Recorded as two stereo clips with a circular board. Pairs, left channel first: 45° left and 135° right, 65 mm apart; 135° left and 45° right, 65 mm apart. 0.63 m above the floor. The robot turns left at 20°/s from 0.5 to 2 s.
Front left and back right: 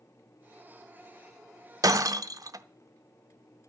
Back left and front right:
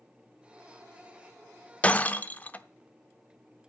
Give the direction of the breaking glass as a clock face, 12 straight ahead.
5 o'clock.